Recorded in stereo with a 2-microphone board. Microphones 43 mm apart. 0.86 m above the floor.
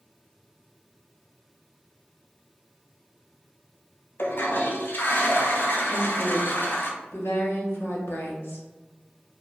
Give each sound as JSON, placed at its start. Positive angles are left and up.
{"t": 4.2, "sound": "a toilet flushing", "side_deg": 50, "distance_m": 0.7}
{"t": 5.9, "sound": "a woman speaking", "side_deg": 70, "distance_m": 1.5}